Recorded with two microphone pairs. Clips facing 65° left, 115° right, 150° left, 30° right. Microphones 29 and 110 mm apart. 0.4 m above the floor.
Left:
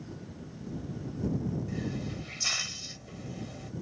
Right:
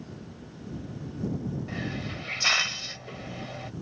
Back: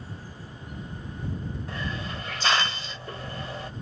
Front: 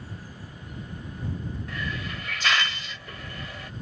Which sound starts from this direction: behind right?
A hiss, at 1.7 s.